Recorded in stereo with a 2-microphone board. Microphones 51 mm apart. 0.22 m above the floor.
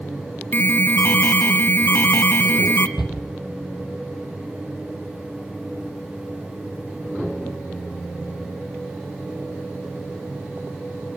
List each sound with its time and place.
0.5 s an alarm: 45° left (ahead or behind), 1.5 m
3.0 s a shout: 10° right (ahead or behind), 8.5 m